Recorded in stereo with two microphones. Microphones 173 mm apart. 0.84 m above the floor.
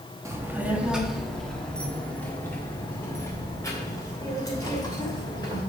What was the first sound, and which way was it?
A child speaking, 15° right (ahead or behind).